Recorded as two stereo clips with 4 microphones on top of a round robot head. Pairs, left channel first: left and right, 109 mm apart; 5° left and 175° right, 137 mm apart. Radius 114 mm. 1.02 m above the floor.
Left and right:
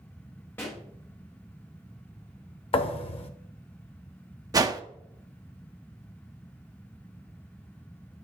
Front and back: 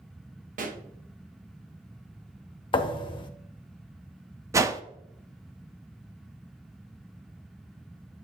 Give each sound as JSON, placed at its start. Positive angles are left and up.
{"t": 0.6, "sound": "a pop", "azimuth_deg": 165, "distance_m": 1.0}
{"t": 2.7, "sound": "a thud", "azimuth_deg": 55, "distance_m": 0.6}
{"t": 4.5, "sound": "a whoosh", "azimuth_deg": -120, "distance_m": 0.5}